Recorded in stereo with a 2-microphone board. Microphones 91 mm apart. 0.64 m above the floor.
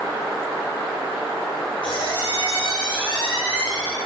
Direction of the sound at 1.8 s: 70° left (ahead or behind).